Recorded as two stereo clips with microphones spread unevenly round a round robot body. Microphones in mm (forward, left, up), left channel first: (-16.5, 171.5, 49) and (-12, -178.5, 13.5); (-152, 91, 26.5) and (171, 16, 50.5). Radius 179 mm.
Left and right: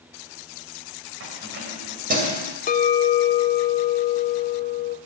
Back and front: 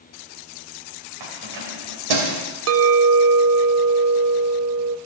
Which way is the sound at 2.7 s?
25° left.